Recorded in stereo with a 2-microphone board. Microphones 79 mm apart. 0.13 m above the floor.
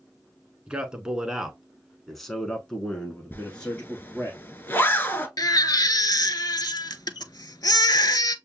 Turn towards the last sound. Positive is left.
turn(degrees=55)  # may be behind; listen again after turning